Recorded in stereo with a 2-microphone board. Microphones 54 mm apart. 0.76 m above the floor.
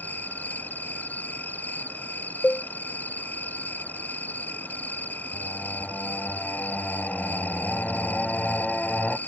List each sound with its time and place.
0.0 s an insect: 35° left (ahead or behind)
2.4 s a cowbell: 40° left (ahead or behind)
5.3 s singing: 20° left (ahead or behind)